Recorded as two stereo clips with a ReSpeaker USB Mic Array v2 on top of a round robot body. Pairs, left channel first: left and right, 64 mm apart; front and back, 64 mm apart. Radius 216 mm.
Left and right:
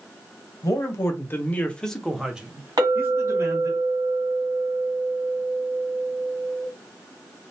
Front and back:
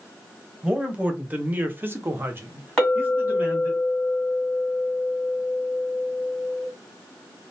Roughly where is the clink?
Right.